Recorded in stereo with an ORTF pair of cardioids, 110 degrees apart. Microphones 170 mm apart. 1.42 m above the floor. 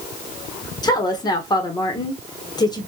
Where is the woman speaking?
25° left, 0.9 m.